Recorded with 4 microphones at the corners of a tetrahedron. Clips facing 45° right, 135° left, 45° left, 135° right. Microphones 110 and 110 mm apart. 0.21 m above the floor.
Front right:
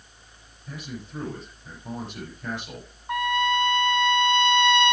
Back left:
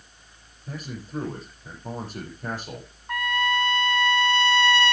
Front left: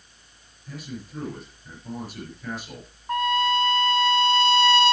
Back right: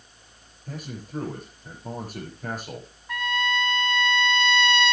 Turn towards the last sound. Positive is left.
turn(degrees=15)